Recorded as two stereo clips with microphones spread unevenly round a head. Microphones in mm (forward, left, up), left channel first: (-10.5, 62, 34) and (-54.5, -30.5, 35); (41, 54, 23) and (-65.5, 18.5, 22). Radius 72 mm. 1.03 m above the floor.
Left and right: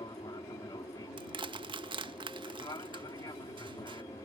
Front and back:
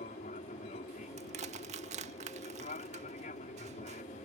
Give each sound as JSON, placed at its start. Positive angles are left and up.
{"t": 0.0, "sound": "an aircraft", "azimuth_deg": 5}
{"t": 1.2, "sound": "crushing", "azimuth_deg": -150}